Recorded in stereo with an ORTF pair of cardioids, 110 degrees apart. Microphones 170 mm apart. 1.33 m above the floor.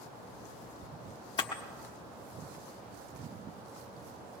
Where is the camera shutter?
30° left, 1.2 m.